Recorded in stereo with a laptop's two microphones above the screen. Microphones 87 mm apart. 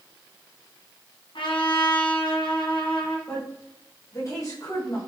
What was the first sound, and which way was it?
A trumpet, 70° left (ahead or behind).